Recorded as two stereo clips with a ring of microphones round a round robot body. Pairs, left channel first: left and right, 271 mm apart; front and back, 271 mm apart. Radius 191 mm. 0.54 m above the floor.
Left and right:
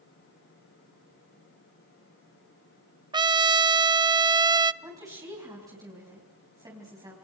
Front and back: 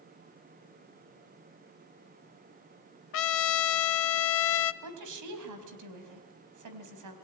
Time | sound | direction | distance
3.1 | a trumpet | 20° right | 0.5 m
4.8 | a woman speaking | 170° right | 4 m